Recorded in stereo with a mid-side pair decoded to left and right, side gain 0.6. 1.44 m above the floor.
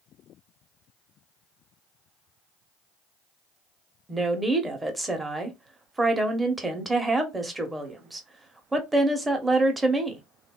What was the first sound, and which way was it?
A woman speaking, 15° right.